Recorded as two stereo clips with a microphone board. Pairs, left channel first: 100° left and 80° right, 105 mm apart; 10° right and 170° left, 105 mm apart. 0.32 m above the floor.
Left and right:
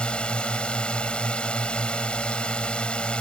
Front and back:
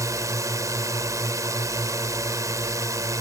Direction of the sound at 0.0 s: 170° left.